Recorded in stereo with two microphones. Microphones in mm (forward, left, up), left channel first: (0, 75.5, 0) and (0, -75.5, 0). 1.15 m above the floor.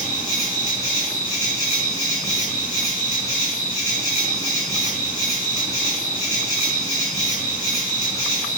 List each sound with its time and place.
0.0 s an insect: 55° left (ahead or behind), 1.3 m